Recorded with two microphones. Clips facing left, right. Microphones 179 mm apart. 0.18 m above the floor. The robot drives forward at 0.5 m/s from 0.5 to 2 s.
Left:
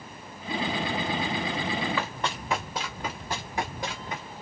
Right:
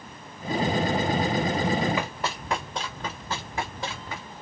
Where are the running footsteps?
15° right (ahead or behind), 1.3 m; by 4.2 s 20° left (ahead or behind), 4.5 m.